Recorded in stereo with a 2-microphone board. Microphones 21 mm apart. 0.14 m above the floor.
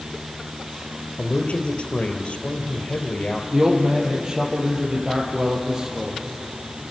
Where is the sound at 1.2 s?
65° left (ahead or behind), 3 m.